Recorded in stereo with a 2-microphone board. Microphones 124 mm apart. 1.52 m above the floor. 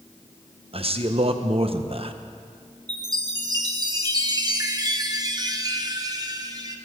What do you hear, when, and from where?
0.7 s a man speaking: 50° right (ahead or behind), 0.9 m
2.9 s a chime: 30° right (ahead or behind), 1.0 m